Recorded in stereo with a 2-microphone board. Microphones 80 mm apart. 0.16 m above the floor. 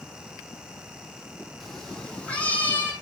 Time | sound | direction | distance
1.6 | a cat meowing | centre (ahead or behind) | 2 m